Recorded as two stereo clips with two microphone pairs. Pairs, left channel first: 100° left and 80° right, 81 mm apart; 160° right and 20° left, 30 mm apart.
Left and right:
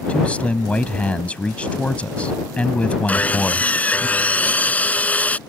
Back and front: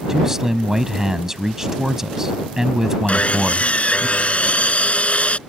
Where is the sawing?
170° left.